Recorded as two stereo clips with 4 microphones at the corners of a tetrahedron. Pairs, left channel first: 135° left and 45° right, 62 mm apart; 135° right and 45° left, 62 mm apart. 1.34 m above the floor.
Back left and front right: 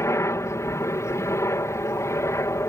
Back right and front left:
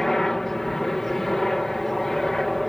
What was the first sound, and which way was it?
A helicopter, 140° left.